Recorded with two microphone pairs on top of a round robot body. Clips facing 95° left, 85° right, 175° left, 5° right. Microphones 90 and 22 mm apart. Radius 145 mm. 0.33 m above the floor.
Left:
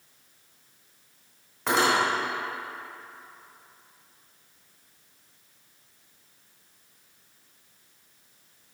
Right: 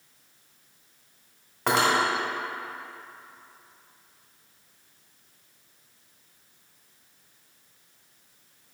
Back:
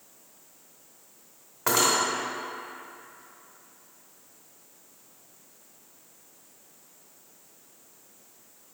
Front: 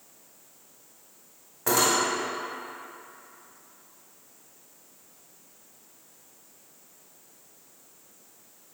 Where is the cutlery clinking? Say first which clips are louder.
Even, even; 115° right, 1.7 m.